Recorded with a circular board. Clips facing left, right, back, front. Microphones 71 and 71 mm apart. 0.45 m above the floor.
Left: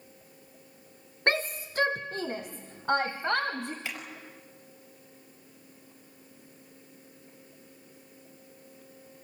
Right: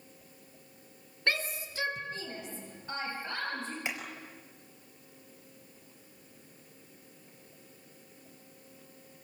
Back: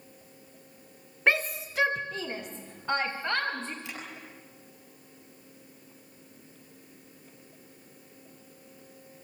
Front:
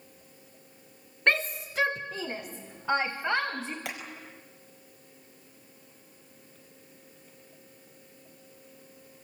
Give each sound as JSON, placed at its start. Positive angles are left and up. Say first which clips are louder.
{"t": 1.3, "sound": "a shout", "louder": "left 5 dB, even", "azimuth_deg": 100, "distance_m": 1.2}
{"t": 3.9, "sound": "hammering", "louder": "right 1 dB, front 3 dB", "azimuth_deg": -20, "distance_m": 5.0}